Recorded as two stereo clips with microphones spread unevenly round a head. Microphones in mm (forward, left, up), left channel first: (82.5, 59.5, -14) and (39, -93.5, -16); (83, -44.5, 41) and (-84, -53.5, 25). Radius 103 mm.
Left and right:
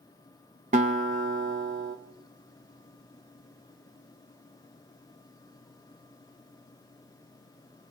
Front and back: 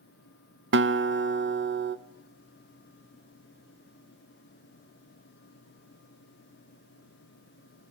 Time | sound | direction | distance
0.7 | a guitar | 165° right | 1.9 m